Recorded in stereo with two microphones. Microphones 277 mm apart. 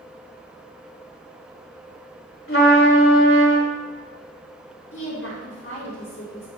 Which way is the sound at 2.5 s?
50° left (ahead or behind).